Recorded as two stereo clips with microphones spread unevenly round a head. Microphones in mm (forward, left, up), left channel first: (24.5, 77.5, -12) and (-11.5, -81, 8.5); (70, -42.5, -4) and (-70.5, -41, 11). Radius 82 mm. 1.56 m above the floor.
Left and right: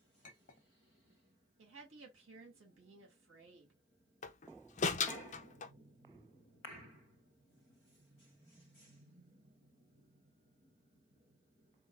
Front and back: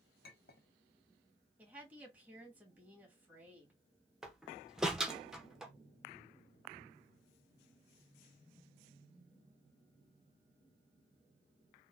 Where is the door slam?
100° left, 0.6 m.